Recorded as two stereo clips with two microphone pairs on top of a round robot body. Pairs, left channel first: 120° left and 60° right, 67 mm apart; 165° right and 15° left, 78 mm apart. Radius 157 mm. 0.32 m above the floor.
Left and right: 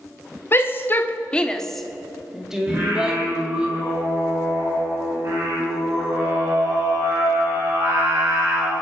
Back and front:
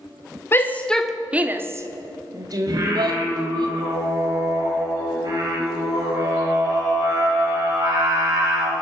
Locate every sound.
0.5 s a shout: 145° left, 1.4 m; by 3.7 s 15° left, 3.5 m
2.7 s singing: 15° right, 6.5 m